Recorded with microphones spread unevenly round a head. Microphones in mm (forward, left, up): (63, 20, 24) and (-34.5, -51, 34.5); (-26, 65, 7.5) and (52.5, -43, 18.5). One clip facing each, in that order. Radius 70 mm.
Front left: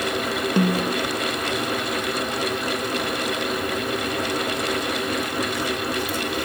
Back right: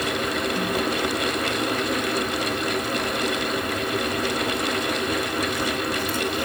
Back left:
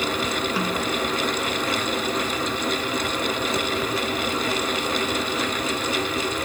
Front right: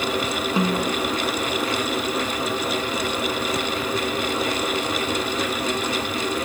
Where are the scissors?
I don't hear scissors.